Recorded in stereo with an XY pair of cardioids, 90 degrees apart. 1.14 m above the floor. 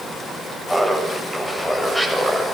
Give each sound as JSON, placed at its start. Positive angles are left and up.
{"t": 0.7, "sound": "laughter", "azimuth_deg": 5, "distance_m": 7.0}